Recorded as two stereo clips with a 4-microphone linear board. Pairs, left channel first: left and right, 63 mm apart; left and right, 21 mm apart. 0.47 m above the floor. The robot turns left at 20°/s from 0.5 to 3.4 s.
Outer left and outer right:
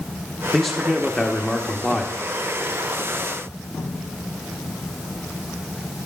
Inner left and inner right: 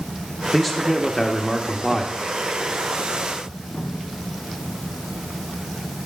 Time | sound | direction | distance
0.5 | a man speaking | centre (ahead or behind) | 0.7 m